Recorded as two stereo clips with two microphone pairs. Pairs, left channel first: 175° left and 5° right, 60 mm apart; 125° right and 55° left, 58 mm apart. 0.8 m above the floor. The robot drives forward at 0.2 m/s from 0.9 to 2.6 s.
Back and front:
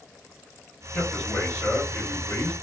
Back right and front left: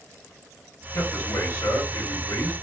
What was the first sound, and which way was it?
A man speaking, 110° right.